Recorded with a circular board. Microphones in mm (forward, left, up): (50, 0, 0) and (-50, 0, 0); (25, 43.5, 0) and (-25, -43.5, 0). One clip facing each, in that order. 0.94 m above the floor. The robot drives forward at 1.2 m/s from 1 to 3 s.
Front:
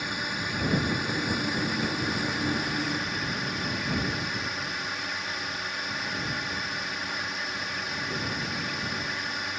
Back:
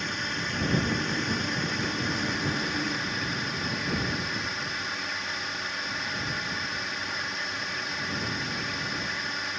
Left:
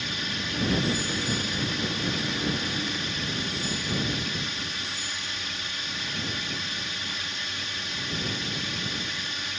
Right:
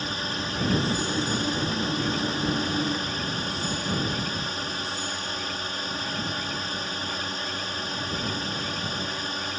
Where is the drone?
85° right; by 9.6 s 90° right.